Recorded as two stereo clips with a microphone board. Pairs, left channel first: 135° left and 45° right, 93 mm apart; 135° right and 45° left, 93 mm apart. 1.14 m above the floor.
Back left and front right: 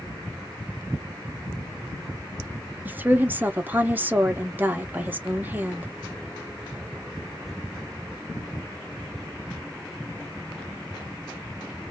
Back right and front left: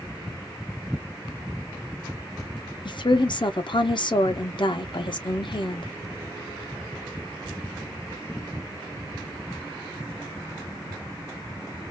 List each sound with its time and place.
2.9 s a woman speaking: 115° right, 0.8 m